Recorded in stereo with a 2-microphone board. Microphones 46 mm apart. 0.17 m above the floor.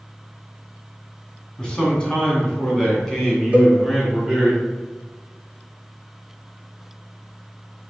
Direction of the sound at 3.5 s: 25° right (ahead or behind).